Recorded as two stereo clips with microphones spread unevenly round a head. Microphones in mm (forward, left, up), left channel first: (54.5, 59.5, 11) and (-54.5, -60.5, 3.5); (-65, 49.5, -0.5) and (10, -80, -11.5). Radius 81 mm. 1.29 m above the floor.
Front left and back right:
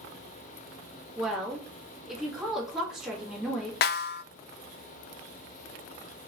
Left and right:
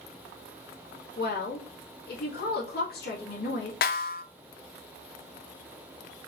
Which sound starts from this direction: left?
A snare drum, at 3.8 s.